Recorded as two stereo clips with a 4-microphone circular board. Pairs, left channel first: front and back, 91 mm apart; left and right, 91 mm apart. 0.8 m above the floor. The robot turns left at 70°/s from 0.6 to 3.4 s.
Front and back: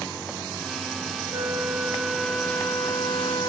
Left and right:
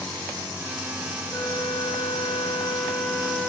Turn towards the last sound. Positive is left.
turn(degrees=0)